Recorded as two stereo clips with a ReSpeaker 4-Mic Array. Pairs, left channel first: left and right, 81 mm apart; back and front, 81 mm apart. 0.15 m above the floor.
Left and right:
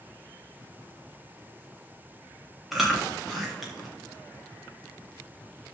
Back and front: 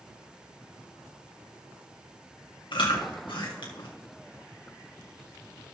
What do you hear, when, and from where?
2.7 s chewing: straight behind, 3 m